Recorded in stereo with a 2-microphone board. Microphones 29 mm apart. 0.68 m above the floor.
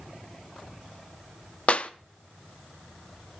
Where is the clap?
45° left (ahead or behind), 0.6 m.